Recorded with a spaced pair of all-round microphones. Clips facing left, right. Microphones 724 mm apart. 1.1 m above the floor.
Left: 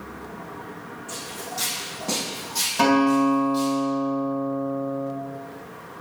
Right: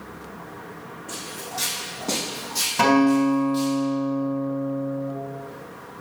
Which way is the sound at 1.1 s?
15° left (ahead or behind).